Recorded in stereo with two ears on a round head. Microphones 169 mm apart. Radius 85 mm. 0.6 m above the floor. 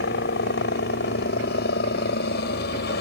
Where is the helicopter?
60° left (ahead or behind); by 3.0 s 55° left (ahead or behind).